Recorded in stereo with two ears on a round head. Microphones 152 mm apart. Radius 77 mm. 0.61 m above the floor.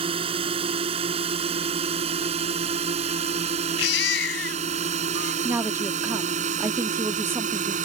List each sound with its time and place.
0.0 s a drone: 35° right (ahead or behind); by 7.9 s 50° right (ahead or behind)
3.8 s a baby crying: 80° left
5.4 s a woman speaking: 15° right (ahead or behind)